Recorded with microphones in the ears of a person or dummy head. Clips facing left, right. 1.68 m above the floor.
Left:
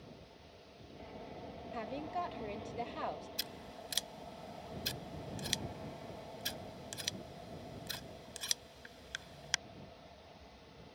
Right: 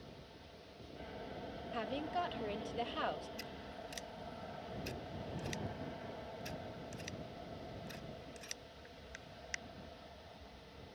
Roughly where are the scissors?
Left.